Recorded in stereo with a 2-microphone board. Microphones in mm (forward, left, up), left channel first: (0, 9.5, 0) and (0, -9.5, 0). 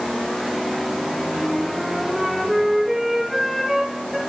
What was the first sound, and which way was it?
A flute, 20° right (ahead or behind).